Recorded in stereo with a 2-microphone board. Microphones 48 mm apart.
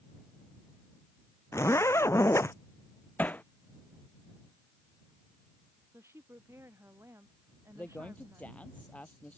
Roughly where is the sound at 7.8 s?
Left.